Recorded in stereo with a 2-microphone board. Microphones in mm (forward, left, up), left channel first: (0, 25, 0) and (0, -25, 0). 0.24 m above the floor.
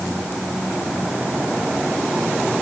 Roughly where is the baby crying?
No baby crying in this recording.